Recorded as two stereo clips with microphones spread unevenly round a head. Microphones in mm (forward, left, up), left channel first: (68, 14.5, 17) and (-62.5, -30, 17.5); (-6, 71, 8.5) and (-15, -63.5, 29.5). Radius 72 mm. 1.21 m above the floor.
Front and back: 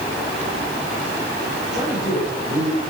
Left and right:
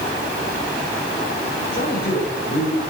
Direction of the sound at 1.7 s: 115° left.